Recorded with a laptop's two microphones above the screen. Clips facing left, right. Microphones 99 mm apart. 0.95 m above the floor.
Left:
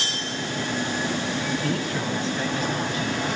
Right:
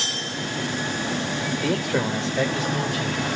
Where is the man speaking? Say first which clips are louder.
Right 3 dB; 70° right (ahead or behind), 3.5 m; by 3.3 s 85° right, 5 m.